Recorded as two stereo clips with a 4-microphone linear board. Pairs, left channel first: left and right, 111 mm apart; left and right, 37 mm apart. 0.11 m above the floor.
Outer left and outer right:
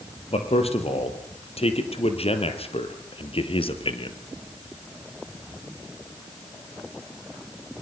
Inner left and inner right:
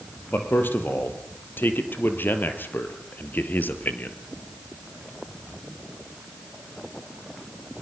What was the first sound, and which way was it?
A man speaking, 65° left (ahead or behind).